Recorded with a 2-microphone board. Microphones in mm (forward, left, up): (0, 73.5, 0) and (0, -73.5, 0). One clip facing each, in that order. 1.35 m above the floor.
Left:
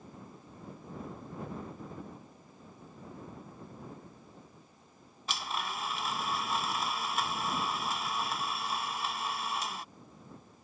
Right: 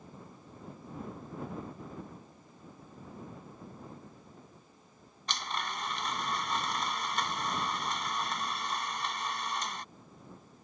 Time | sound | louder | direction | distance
5.3 | a blender | even | 5° left (ahead or behind) | ?